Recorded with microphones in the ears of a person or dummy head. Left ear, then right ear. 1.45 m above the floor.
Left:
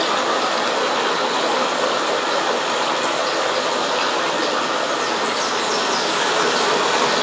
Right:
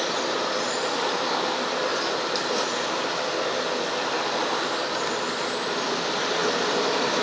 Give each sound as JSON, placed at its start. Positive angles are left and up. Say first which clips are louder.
{"t": 0.0, "sound": "running water", "louder": "left 7 dB", "side_deg": 50, "distance_m": 4.5}